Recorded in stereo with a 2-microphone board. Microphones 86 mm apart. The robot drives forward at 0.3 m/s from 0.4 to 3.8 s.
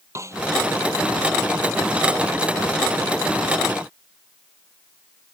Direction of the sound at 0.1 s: 35° right (ahead or behind).